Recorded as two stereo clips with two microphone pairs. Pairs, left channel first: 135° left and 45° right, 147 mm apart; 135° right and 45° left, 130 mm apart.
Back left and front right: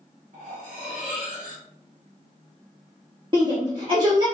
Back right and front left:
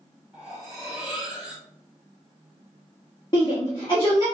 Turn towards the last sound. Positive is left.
turn(degrees=-95)